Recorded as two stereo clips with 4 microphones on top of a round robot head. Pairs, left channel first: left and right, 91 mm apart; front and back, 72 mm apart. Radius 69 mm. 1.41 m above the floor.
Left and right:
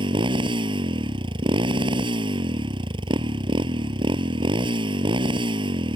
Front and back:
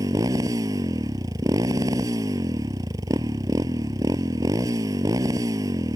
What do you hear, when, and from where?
0.0 s a motorcycle: 120° right